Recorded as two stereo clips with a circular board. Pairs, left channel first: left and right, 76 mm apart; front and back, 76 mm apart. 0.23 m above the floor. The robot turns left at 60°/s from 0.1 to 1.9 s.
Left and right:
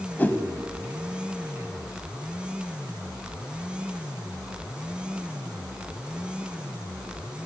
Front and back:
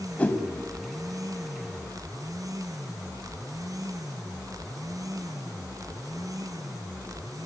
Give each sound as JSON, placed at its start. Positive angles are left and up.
{"t": 0.2, "sound": "a whoosh", "azimuth_deg": 50, "distance_m": 1.5}